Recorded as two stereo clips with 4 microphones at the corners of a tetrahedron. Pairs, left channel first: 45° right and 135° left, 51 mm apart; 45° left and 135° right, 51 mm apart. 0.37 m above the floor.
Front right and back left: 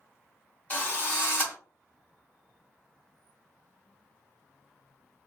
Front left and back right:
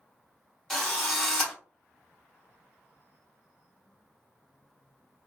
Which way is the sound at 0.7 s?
40° right.